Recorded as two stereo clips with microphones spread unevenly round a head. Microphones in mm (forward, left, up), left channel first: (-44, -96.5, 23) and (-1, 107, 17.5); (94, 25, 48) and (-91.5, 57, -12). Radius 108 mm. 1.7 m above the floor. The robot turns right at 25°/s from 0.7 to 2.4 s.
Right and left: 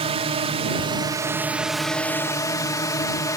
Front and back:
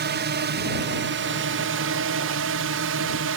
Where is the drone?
140° left; by 3.4 s 175° right.